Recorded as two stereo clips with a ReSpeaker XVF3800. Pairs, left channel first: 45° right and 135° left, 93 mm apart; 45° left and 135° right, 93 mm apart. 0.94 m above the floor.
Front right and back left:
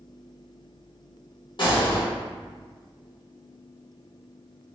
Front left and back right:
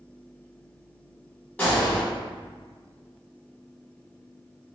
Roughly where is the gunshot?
Ahead right.